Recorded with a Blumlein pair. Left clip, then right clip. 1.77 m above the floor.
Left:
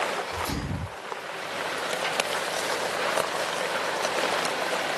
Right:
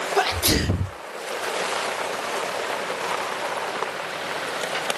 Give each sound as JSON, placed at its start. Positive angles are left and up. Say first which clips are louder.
{"t": 0.2, "sound": "a sneeze", "louder": "right 9 dB", "azimuth_deg": -45, "distance_m": 0.5}